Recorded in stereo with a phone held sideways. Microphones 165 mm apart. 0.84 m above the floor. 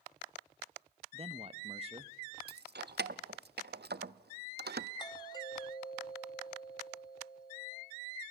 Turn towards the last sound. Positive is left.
turn(degrees=25)  # may be behind; listen again after turning